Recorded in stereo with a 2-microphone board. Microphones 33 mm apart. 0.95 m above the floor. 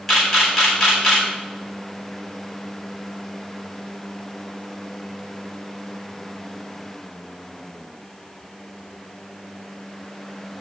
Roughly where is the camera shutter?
Centre.